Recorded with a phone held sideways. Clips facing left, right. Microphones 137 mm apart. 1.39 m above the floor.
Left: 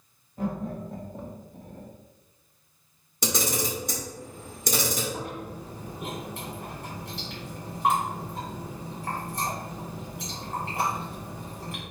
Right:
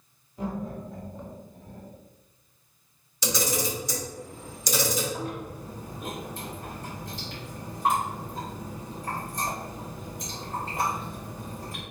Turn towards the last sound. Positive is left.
turn(degrees=75)  # may be behind; listen again after turning